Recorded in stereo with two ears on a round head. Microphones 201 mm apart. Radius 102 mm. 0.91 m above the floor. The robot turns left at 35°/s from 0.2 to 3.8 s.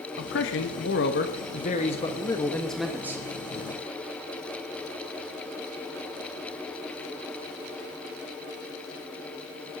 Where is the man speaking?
90° left, 1.2 m; by 3.2 s 15° right, 1.2 m.